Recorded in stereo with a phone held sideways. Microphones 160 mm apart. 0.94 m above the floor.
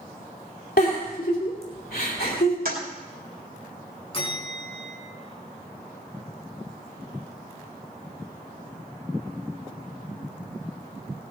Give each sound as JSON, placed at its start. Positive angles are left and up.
{"t": 0.8, "sound": "a giggle", "side_deg": 75, "distance_m": 3.0}
{"t": 2.6, "sound": "a toilet flushing", "side_deg": -70, "distance_m": 2.5}
{"t": 4.1, "sound": "a bell", "side_deg": 35, "distance_m": 3.5}